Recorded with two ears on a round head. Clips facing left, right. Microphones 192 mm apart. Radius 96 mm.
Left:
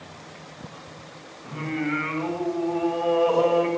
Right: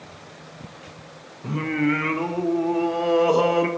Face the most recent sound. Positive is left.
turn(degrees=-60)  # may be behind; listen again after turning